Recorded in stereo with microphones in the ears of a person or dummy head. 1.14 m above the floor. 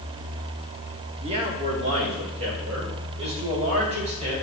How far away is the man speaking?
About 3 m.